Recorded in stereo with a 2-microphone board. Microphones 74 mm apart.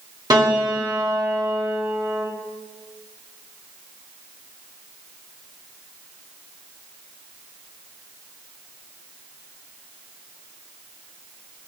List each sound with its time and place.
0.3 s a piano: 65° right (ahead or behind), 2 m